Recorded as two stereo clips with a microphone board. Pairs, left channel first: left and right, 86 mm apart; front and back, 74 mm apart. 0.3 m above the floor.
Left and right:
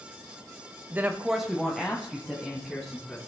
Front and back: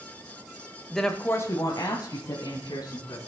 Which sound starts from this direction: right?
A woman speaking, at 0.9 s.